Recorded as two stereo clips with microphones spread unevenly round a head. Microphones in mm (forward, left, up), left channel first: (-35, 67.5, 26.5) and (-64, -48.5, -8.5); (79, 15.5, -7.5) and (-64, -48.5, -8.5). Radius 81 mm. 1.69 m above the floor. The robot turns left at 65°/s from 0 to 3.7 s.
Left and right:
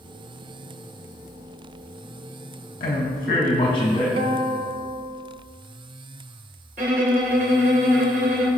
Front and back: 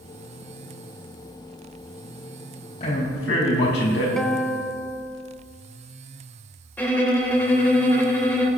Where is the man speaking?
80° left, 3 m; by 4.1 s 20° left, 3 m.